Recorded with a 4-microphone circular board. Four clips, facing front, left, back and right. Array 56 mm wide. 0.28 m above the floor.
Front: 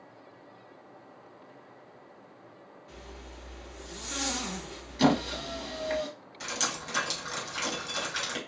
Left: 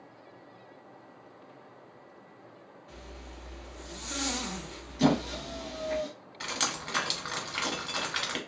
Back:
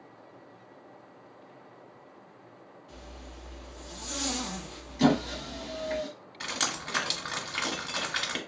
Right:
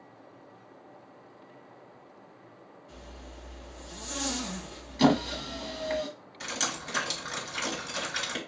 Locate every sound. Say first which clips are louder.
2.9 s a zipper: left 1 dB, even; 60° left, 2 m
5.0 s a squeak: right 2 dB, even; 60° right, 1.0 m
6.4 s dripping: even, back 1 dB; 125° left, 1.2 m